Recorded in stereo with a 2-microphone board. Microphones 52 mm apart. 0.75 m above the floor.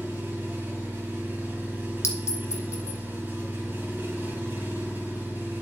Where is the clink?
65° left (ahead or behind), 1.8 m.